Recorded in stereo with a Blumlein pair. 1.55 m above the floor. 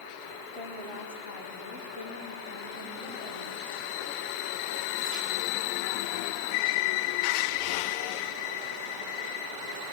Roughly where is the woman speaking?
Ahead left.